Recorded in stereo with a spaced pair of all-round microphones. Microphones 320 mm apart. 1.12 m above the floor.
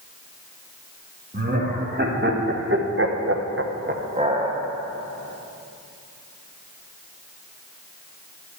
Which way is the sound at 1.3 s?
30° right (ahead or behind).